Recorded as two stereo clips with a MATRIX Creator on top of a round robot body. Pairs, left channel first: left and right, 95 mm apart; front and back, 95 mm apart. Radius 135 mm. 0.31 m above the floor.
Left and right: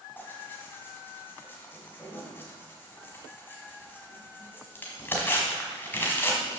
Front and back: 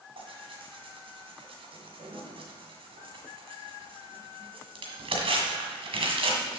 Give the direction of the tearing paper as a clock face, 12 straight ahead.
7 o'clock.